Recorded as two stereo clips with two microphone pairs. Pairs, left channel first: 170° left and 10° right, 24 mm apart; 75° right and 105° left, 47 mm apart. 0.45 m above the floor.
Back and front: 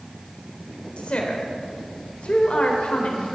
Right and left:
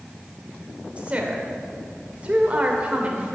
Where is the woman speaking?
155° left, 1.7 m.